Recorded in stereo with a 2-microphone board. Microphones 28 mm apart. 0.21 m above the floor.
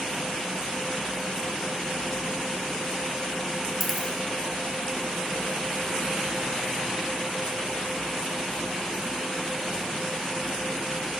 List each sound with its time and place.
3.8 s a dropped coin: centre (ahead or behind), 0.8 m